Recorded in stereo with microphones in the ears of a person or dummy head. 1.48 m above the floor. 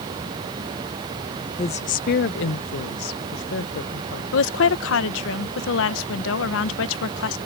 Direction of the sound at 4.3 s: 80° left.